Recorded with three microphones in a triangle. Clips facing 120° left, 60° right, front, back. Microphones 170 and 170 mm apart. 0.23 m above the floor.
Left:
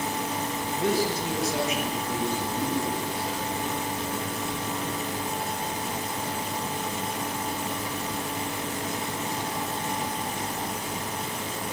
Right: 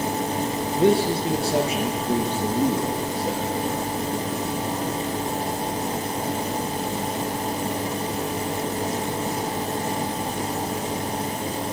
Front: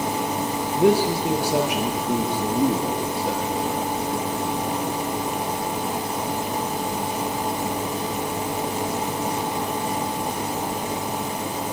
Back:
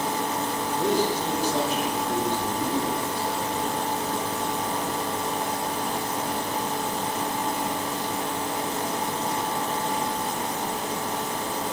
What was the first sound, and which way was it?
A man speaking, 5° left.